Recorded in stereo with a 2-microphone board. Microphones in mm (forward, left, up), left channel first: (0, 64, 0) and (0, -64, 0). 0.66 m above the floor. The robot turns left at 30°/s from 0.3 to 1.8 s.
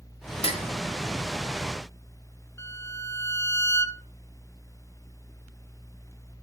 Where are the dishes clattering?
50° left (ahead or behind), 1.3 m; by 0.6 s 55° left (ahead or behind), 1.3 m.